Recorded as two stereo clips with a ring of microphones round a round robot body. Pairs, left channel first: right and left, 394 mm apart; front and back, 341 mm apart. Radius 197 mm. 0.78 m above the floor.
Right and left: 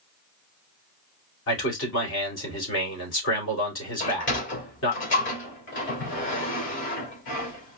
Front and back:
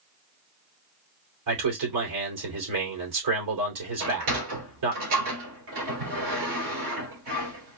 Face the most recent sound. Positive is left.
turn(degrees=-150)